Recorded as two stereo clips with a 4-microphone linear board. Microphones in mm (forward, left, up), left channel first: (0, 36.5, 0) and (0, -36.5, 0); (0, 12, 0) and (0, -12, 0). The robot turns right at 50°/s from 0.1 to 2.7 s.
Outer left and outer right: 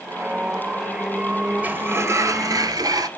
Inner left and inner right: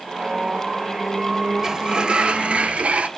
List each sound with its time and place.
1.6 s a sliding door: 155° right, 0.6 m; by 3.1 s 100° right, 0.6 m